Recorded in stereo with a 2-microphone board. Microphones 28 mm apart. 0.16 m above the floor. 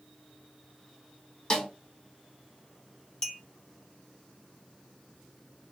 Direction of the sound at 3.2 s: 25° left (ahead or behind).